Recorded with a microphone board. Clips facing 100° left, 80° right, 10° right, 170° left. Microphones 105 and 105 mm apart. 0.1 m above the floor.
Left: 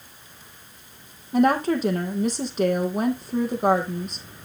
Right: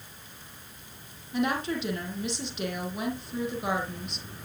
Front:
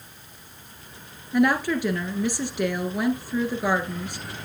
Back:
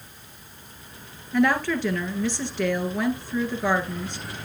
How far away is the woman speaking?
About 2.0 m.